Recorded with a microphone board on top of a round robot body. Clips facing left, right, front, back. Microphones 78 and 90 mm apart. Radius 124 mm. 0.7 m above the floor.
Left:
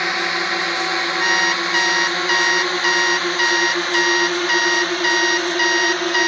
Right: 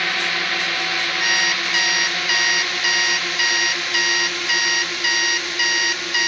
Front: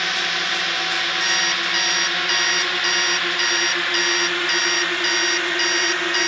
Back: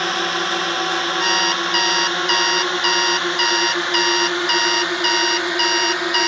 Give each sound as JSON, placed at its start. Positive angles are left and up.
{"t": 0.0, "sound": "a drone", "azimuth_deg": 150}
{"t": 1.2, "sound": "an alarm clock", "azimuth_deg": 145}